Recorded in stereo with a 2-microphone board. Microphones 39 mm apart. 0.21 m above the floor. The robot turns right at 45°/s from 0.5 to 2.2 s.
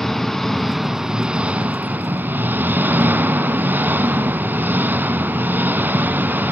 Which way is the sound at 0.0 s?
175° left.